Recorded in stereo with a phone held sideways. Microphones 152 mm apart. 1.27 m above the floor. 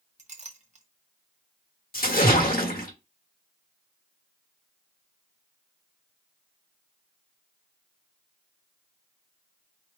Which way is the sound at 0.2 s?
50° right (ahead or behind).